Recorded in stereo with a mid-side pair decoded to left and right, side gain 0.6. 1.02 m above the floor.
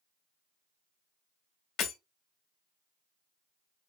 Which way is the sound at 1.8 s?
55° left.